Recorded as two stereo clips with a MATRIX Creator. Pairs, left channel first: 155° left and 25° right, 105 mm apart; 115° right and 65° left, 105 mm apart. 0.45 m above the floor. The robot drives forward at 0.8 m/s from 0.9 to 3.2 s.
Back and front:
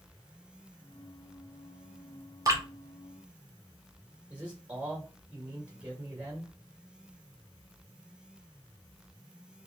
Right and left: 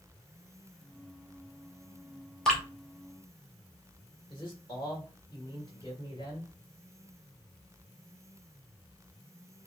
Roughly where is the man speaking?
Right.